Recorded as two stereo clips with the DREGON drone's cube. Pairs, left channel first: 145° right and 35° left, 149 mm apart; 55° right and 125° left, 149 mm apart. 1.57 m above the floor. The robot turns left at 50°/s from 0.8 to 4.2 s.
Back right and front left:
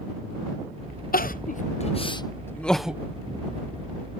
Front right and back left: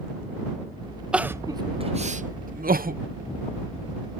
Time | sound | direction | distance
1.1 | crying | 150° right | ?